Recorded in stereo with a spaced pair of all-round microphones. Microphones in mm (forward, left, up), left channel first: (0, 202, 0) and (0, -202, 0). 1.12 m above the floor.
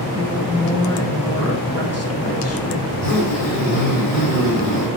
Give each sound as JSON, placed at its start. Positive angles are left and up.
{"t": 0.2, "sound": "a woman speaking", "side_deg": 35, "distance_m": 1.4}
{"t": 2.9, "sound": "a zipper", "side_deg": 55, "distance_m": 4.5}